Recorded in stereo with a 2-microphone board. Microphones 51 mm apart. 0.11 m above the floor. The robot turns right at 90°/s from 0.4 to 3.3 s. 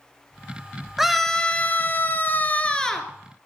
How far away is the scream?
About 1.6 m.